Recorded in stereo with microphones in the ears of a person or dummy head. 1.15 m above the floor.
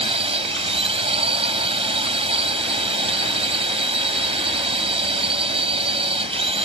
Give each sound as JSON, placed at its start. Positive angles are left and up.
{"t": 0.0, "sound": "a drone", "side_deg": -30}